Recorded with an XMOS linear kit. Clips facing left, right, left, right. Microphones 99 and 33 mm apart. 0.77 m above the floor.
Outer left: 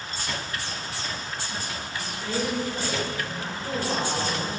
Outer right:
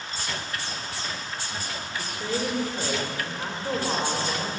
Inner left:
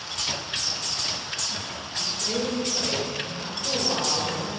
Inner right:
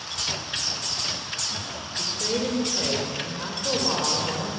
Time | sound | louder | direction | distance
2.0 | a woman speaking | even, inner right 1 dB | 35° right (ahead or behind) | 1.5 m